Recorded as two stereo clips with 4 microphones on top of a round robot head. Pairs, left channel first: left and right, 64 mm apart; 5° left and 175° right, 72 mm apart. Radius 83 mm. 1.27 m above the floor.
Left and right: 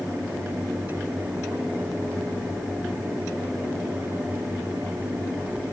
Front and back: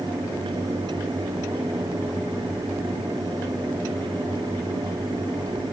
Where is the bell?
I don't hear a bell.